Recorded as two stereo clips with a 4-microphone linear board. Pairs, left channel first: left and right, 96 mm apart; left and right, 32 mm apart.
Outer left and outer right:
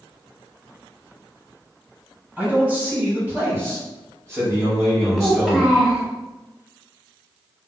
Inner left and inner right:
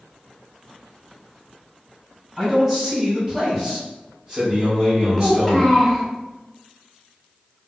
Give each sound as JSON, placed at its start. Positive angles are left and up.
{"t": 2.4, "sound": "a man speaking", "side_deg": -15, "distance_m": 2.0}
{"t": 5.2, "sound": "a child speaking", "side_deg": -5, "distance_m": 1.2}